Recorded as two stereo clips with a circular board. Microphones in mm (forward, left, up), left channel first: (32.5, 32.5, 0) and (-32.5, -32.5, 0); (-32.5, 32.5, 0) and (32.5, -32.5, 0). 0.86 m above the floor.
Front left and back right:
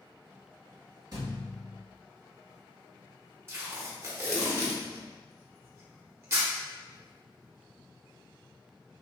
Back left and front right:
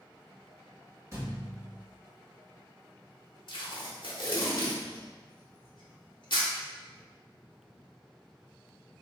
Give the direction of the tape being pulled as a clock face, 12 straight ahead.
7 o'clock.